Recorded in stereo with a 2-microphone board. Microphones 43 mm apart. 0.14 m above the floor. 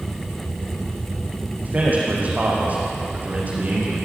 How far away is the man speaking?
About 9 m.